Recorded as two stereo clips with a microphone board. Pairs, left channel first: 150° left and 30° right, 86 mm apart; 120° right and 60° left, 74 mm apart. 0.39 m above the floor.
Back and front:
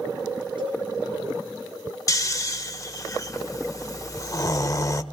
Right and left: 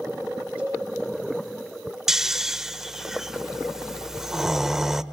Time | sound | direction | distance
0.6 | a cowbell | 15° right | 9 m
2.1 | snoring | 140° left | 0.8 m